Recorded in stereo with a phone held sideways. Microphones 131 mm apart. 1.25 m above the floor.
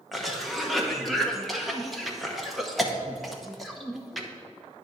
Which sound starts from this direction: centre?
A cough, at 0.1 s.